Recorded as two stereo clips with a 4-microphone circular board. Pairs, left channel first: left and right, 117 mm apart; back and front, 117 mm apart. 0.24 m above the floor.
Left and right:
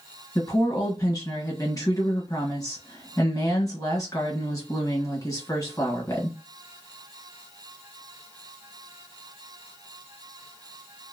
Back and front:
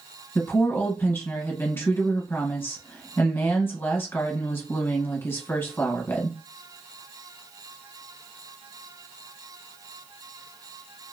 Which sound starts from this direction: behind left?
A woman speaking, at 0.3 s.